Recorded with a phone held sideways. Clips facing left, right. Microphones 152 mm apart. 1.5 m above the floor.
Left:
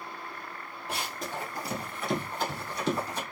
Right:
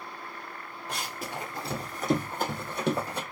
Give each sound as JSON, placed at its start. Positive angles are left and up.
{"t": 0.9, "sound": "running footsteps", "side_deg": 10, "distance_m": 1.7}